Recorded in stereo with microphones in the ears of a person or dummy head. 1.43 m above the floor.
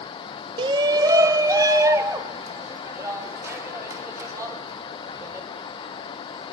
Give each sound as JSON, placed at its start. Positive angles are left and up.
{"t": 0.6, "sound": "a shout", "side_deg": -25, "distance_m": 0.6}